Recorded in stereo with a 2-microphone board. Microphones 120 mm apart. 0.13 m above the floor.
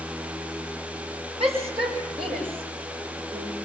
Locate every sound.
1.4 s a shout: 50° right (ahead or behind), 7 m; by 3.5 s 40° right (ahead or behind), 8.5 m